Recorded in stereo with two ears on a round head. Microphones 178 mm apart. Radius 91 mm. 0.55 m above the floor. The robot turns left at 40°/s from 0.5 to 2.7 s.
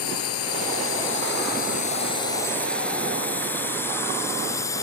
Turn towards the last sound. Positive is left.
turn(degrees=15)  # may be behind; listen again after turning